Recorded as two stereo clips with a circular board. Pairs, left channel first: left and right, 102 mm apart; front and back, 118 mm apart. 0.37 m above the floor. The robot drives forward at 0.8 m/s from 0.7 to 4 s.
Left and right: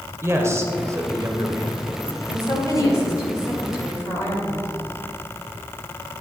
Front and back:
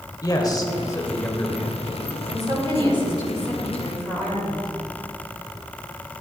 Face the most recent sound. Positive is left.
turn(degrees=150)